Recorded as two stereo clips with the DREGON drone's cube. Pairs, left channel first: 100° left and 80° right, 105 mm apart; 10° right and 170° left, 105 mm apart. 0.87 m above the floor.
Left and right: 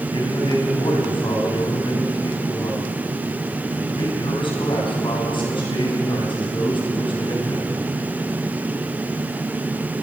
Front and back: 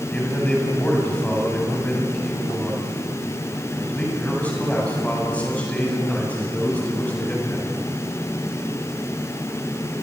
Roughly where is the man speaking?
Ahead left.